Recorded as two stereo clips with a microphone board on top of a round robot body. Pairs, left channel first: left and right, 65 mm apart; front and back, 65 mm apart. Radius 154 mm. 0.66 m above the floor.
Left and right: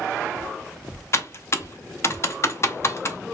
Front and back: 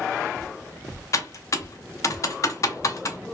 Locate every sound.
1.1 s typing on a keyboard: 40° left, 0.6 m